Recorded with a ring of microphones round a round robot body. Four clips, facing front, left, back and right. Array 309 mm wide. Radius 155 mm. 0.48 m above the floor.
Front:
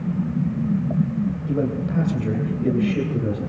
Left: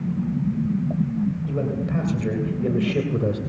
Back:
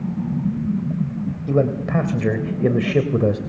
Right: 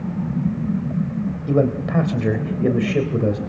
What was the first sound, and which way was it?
A man speaking, 140° right.